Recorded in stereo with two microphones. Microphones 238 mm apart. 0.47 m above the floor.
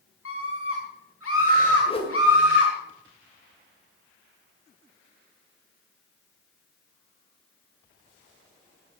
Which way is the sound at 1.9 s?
25° left (ahead or behind).